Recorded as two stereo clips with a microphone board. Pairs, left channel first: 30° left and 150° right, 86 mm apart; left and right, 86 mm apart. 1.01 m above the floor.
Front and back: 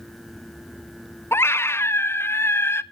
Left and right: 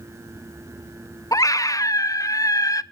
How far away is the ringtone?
No ringtone in this recording.